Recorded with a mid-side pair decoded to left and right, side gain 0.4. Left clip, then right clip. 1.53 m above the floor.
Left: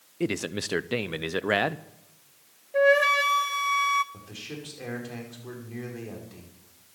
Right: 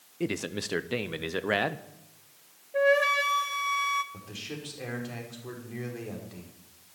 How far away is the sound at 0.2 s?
About 0.8 m.